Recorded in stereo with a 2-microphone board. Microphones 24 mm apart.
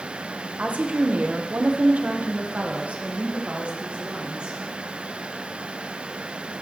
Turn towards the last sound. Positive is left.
turn(degrees=-50)  # may be behind; listen again after turning